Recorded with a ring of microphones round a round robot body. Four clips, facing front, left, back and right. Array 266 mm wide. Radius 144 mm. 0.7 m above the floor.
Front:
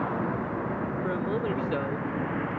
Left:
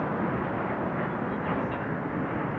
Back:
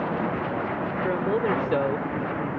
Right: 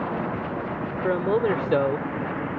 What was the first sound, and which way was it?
A man speaking, 110° right.